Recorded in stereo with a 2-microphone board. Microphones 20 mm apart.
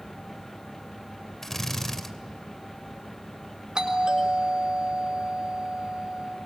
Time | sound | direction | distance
1.4 | a drill | 15° left (ahead or behind) | 2.5 m
3.8 | a doorbell | 45° right (ahead or behind) | 6 m